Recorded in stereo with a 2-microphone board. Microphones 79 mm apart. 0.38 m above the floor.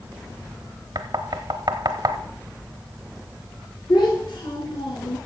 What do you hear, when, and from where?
0.9 s knocking: 60° right (ahead or behind), 1.1 m
3.9 s a child speaking: 65° left (ahead or behind), 4.5 m